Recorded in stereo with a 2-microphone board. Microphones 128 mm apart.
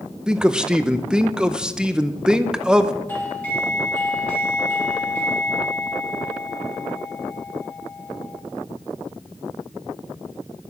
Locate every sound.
0.3 s a man speaking: 5° right (ahead or behind), 0.6 m
3.1 s a doorbell: 10° left (ahead or behind), 1.8 m